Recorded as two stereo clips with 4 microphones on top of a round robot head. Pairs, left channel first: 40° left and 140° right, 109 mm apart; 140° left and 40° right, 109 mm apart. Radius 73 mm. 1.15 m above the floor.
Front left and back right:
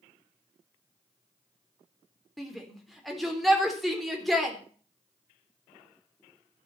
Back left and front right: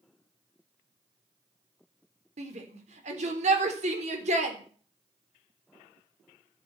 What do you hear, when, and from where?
2.4 s a shout: 50° right, 4 m